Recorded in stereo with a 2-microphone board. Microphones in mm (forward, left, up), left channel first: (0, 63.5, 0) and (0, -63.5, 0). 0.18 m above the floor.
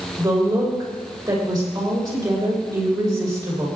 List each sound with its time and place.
0.2 s a woman speaking: 35° right (ahead or behind), 6.5 m